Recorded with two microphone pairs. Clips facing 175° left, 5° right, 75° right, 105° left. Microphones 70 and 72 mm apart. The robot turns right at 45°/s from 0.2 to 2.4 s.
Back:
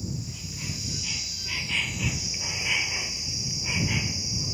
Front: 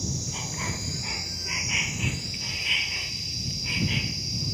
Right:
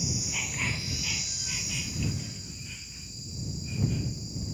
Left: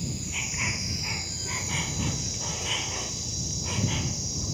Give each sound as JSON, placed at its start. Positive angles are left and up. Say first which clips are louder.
{"t": 0.0, "sound": "an insect", "louder": "front 2 dB, even", "azimuth_deg": 5}